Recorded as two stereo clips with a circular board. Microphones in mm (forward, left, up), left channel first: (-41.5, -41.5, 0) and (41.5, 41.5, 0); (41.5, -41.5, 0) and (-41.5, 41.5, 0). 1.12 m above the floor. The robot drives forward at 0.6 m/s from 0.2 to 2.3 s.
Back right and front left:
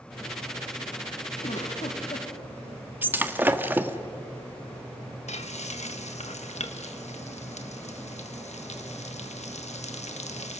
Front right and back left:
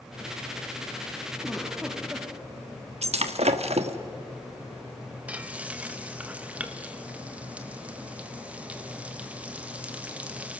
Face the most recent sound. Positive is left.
turn(degrees=-145)